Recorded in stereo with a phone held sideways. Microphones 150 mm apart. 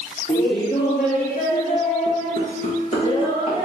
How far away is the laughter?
About 0.9 m.